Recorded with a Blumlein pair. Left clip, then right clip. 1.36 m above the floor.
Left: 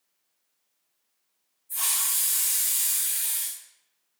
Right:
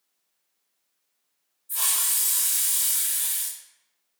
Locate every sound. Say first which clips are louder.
1.7 s a hiss: right 1 dB; 60° right, 2.0 m